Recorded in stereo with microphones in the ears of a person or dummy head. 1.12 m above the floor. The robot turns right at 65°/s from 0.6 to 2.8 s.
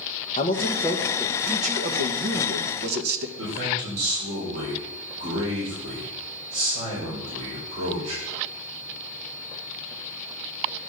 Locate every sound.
0.4 s a man speaking: 150° left, 1.1 m; by 3.3 s 65° right, 1.1 m
3.4 s a man speaking: 85° right, 4 m